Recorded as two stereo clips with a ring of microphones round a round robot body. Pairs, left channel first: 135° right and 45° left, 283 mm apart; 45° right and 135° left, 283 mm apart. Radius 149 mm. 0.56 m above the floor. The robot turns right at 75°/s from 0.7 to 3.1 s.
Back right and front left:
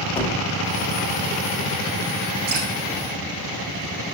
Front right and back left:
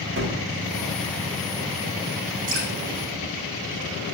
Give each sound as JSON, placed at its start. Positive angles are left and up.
{"t": 0.2, "sound": "a gunshot", "azimuth_deg": 160, "distance_m": 1.4}
{"t": 2.5, "sound": "dripping", "azimuth_deg": 85, "distance_m": 4.5}